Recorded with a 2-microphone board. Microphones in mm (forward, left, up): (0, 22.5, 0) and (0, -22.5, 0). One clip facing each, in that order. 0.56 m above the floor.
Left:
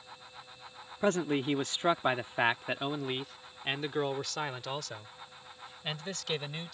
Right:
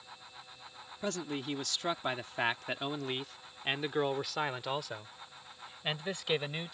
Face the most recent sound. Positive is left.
turn(degrees=-20)  # may be behind; listen again after turning